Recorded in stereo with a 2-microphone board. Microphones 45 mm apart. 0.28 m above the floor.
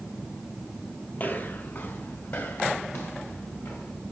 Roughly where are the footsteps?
Left.